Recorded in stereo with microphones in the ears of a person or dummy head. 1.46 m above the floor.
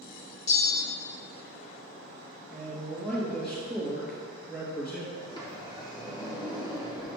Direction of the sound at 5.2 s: 25° left (ahead or behind).